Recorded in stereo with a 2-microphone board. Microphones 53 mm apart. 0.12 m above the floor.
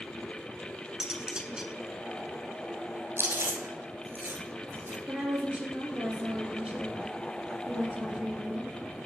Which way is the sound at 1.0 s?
15° right (ahead or behind).